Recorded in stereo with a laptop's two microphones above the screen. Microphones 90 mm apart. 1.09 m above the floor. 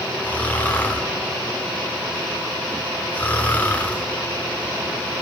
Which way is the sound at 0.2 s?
20° left (ahead or behind).